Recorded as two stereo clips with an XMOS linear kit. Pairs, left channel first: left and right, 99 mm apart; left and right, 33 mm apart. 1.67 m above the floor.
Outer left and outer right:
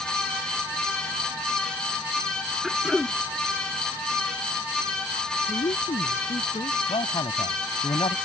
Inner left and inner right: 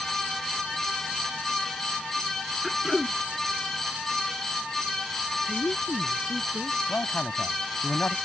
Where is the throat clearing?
Centre (ahead or behind).